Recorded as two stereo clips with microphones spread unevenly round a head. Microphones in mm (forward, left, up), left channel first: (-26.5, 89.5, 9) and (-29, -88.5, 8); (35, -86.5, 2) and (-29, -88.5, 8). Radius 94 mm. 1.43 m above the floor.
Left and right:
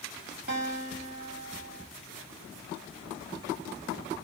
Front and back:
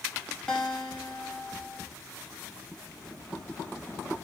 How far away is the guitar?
About 1.2 m.